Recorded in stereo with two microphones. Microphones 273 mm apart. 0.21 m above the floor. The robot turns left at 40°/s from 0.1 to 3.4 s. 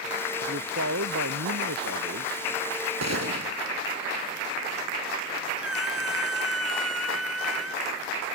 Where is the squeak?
60° right (ahead or behind).